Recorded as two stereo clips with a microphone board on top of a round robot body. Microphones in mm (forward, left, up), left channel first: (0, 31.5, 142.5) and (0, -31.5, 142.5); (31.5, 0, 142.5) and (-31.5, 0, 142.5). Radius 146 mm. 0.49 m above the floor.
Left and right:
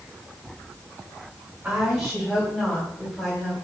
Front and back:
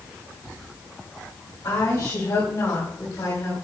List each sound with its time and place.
1.6 s a woman speaking: 15° right, 3.5 m; by 3.5 s 20° left, 3.5 m